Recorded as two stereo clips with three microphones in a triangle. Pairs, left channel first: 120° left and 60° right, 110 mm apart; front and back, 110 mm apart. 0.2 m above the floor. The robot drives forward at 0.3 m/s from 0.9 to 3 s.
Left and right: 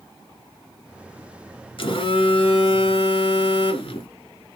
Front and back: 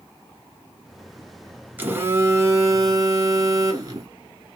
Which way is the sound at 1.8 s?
110° left.